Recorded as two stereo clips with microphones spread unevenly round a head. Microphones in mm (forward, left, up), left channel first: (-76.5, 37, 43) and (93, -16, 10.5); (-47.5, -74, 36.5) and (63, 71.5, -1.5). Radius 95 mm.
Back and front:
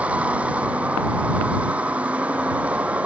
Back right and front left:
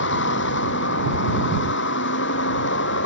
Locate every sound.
0.0 s a vehicle: 100° right